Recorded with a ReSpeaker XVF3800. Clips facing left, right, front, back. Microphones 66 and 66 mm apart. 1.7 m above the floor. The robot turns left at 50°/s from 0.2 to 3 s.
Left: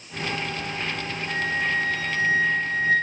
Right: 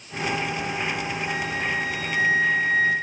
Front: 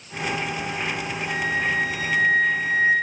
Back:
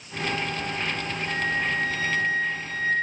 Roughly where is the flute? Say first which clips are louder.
Left 5 dB, front 2 dB; behind.